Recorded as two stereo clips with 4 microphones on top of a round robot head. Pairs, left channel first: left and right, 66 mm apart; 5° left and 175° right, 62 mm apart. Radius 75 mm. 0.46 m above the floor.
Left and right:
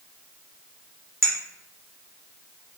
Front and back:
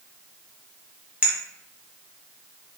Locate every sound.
1.2 s a clink: 110° right, 1.0 m